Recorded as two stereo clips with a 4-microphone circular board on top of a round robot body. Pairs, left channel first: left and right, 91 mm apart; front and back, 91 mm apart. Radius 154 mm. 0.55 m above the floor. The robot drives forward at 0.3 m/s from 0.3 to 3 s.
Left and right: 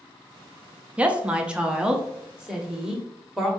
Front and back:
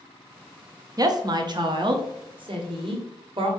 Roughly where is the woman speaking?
Behind.